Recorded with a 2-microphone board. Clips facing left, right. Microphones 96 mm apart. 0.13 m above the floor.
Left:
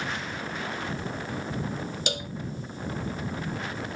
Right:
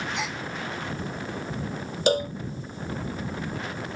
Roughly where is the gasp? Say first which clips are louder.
Right 3 dB; right.